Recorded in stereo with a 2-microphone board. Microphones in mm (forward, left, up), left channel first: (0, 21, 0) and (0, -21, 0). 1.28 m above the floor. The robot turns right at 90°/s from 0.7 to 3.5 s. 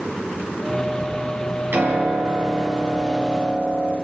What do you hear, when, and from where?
1.7 s a piano: 120° right, 4.5 m; by 4.0 s 40° left, 4.5 m